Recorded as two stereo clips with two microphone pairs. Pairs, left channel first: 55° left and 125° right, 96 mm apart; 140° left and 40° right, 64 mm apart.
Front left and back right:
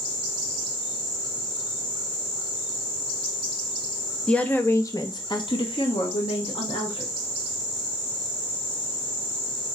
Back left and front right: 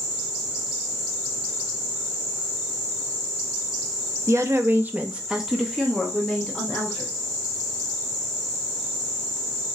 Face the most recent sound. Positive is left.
turn(degrees=70)